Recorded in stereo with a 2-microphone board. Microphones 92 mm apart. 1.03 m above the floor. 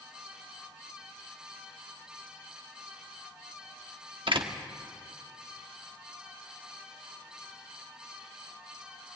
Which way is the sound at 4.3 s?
65° right (ahead or behind).